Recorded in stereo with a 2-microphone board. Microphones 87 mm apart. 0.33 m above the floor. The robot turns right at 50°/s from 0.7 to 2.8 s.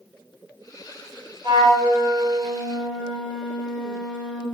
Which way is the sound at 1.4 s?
70° right.